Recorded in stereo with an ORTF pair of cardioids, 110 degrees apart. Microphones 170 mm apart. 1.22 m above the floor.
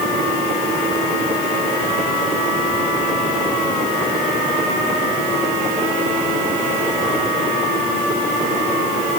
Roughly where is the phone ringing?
No phone ringing in this recording.